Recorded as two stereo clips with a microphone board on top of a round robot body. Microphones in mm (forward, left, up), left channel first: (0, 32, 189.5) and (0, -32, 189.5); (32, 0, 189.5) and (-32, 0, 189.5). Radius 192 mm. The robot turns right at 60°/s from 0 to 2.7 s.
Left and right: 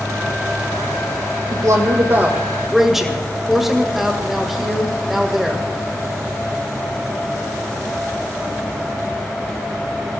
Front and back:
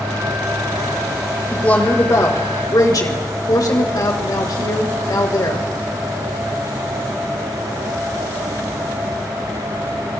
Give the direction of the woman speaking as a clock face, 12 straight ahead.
3 o'clock.